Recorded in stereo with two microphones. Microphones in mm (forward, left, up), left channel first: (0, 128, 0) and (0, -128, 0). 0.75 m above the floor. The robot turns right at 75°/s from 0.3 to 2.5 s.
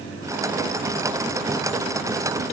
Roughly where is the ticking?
I don't hear ticking.